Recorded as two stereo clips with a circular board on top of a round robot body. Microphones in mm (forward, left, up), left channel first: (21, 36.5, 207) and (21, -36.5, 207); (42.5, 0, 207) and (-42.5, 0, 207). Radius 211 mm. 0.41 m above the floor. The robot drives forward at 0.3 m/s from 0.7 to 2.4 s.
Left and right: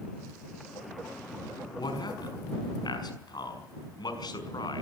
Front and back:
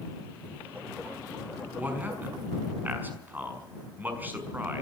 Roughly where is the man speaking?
Left.